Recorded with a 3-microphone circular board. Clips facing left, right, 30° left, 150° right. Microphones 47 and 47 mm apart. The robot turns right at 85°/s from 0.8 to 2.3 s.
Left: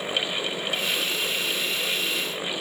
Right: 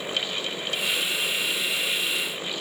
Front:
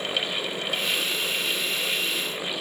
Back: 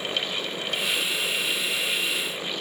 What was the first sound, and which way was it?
Only background noise.